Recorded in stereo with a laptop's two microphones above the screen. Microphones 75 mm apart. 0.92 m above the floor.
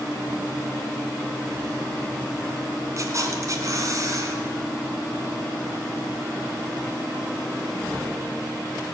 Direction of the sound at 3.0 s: 45° right (ahead or behind).